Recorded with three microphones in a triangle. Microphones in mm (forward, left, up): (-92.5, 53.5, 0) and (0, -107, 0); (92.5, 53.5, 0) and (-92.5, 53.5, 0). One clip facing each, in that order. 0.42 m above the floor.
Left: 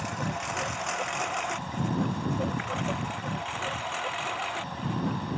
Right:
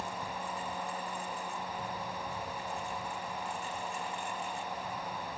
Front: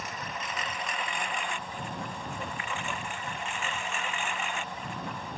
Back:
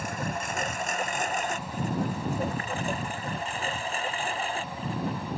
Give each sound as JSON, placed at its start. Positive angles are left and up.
{"t": 0.0, "sound": "a lawn mower", "azimuth_deg": 135}